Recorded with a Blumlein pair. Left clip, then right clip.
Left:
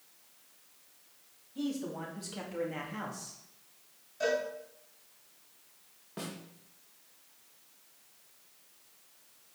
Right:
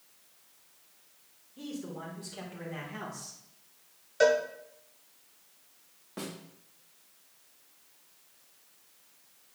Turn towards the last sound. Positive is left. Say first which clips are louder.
# right 1 dB
turn(degrees=-5)